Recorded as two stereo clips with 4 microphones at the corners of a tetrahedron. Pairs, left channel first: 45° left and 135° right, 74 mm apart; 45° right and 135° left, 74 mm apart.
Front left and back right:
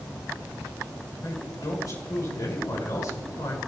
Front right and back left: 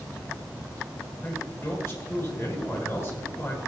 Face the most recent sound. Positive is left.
turn(degrees=10)